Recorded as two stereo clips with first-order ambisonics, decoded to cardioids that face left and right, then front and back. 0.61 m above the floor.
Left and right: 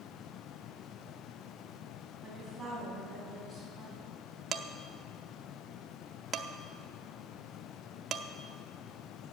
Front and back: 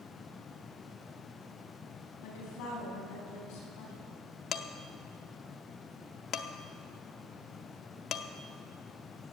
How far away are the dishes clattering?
About 0.7 m.